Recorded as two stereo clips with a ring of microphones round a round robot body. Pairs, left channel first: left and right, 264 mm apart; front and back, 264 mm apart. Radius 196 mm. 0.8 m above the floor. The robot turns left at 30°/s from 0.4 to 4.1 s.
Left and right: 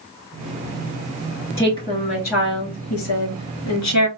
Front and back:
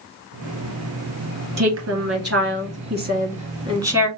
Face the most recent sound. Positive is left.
turn(degrees=95)